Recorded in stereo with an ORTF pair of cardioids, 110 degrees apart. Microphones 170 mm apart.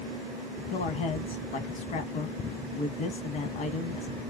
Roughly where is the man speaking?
Ahead left.